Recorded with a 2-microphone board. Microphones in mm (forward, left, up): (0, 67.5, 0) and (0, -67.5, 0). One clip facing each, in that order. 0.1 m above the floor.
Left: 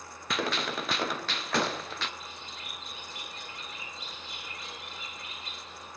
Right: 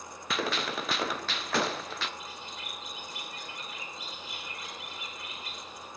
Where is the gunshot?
Centre (ahead or behind), 0.6 m.